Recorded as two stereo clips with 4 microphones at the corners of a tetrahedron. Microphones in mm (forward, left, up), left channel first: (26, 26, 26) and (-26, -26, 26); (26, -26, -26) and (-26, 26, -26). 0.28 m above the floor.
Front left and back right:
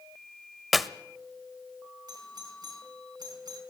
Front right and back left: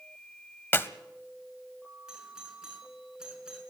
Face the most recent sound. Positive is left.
turn(degrees=-150)